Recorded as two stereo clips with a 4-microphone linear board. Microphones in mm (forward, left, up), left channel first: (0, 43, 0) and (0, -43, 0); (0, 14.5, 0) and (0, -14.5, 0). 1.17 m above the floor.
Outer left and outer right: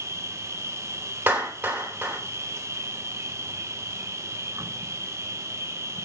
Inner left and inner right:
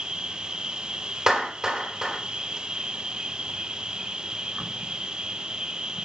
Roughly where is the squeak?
I don't hear a squeak.